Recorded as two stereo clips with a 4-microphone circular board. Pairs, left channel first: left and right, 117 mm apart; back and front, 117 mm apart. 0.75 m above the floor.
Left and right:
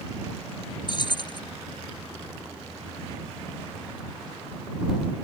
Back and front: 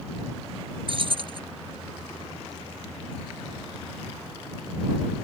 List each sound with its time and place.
0.9 s keys jangling: 40° left